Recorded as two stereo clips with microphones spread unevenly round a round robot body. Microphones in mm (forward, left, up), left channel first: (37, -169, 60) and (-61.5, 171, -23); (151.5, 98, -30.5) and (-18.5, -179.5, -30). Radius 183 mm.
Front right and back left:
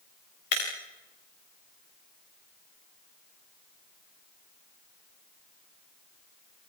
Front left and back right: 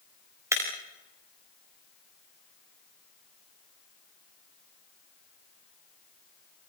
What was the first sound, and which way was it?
Breaking glass, 40° right.